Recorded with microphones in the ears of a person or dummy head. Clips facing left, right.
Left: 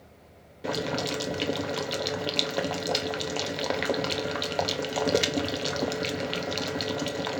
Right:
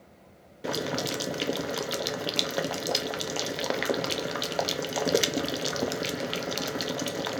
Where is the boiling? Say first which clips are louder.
Left 1 dB; 5° right (ahead or behind), 0.9 m.